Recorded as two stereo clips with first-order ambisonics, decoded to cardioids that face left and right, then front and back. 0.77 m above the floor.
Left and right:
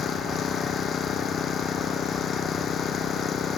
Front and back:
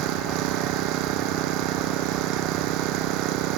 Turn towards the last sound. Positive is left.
turn(degrees=150)